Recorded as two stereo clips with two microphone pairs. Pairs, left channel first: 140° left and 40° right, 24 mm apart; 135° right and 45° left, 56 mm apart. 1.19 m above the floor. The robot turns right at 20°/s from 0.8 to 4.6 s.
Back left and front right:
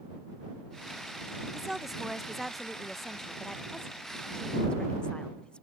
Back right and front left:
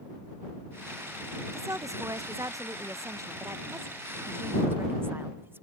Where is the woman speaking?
30° left; by 5.6 s 95° left.